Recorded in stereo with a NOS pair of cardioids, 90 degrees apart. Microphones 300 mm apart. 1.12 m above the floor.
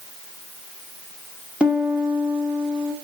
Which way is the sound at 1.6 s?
5° right.